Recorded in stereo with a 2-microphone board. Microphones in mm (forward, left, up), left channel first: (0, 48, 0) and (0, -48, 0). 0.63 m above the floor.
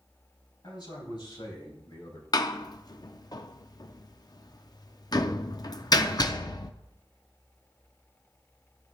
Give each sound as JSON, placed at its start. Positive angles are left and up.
{"t": 0.6, "sound": "a man speaking", "side_deg": 55, "distance_m": 4.5}
{"t": 2.3, "sound": "a door slam", "side_deg": 45, "distance_m": 0.5}